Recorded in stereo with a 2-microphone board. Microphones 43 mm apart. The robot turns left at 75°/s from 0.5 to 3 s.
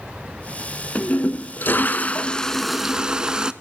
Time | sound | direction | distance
0.9 | a toilet flushing | 130° left | 0.5 m